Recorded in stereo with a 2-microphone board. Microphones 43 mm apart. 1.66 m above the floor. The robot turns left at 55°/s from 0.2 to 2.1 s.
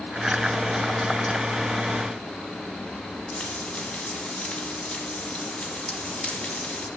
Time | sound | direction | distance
3.3 | frying | 25° left (ahead or behind) | 3 m